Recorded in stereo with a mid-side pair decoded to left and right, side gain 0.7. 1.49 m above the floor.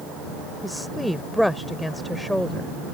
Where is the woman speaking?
5° left.